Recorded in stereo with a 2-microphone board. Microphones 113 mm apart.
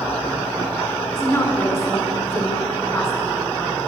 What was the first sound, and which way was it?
A woman speaking, 20° left (ahead or behind).